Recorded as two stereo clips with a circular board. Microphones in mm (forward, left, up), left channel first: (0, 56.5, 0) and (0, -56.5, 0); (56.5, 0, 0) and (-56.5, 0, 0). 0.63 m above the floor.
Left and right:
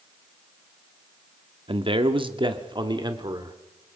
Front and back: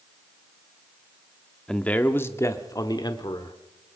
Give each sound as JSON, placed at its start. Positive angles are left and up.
{"t": 1.7, "sound": "a man speaking", "azimuth_deg": -80, "distance_m": 1.2}